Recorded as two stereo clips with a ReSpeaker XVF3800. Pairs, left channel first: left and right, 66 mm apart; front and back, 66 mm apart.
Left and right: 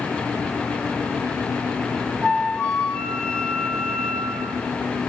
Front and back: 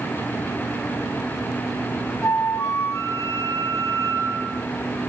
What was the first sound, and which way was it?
A flute, 20° left.